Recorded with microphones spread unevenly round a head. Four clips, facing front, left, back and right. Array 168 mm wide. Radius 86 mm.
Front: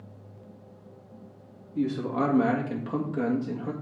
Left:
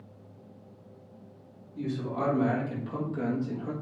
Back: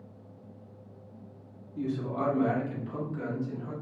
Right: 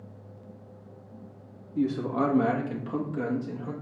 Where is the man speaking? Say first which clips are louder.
Right 6 dB, front 5 dB; 55° right, 2 m; by 3.7 s 10° left, 1.7 m.